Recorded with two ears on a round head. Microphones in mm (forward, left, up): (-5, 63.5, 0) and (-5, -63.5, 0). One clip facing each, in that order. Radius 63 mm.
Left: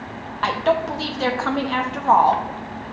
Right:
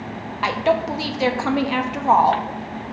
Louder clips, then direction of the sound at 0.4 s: Even; 15° right (ahead or behind).